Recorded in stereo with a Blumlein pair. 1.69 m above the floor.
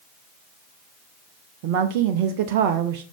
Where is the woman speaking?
45° right, 0.6 m.